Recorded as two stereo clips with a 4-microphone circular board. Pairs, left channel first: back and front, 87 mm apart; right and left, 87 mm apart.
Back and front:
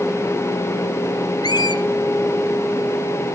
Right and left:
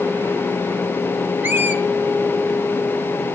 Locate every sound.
1.4 s a squeak: 155° left, 1.3 m